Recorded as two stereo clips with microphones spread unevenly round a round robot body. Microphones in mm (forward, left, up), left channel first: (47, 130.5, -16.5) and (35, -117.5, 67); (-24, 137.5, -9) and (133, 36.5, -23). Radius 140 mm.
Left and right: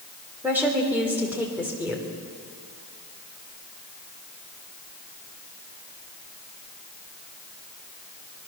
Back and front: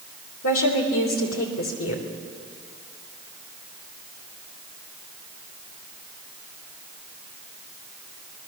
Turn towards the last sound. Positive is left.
turn(degrees=180)